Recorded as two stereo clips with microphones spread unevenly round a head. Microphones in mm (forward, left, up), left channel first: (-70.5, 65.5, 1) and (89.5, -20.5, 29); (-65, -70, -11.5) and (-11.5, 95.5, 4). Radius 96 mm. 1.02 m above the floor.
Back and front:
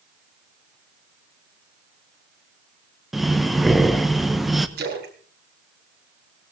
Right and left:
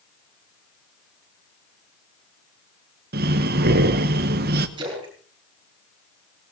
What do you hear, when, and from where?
3.1 s breathing: 70° left, 1.1 m
4.8 s a splash: 5° left, 4 m